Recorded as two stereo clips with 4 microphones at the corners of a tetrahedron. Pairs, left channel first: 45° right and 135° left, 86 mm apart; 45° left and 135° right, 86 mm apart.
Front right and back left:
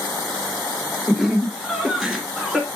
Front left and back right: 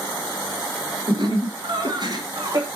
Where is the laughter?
135° right, 2 m; by 2.7 s 145° right, 1.3 m.